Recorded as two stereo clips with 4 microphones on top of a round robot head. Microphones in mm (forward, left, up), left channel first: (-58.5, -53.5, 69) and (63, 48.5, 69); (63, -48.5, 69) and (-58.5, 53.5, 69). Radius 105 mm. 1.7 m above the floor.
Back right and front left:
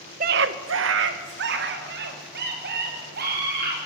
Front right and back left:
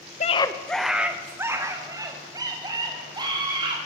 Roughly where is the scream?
Ahead.